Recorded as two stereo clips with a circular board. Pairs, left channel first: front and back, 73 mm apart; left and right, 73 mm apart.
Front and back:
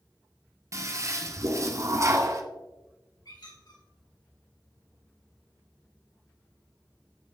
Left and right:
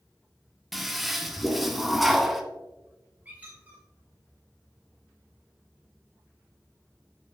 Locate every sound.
0.7 s a toilet flushing: 175° right, 0.8 m
3.2 s a squeak: 20° right, 2 m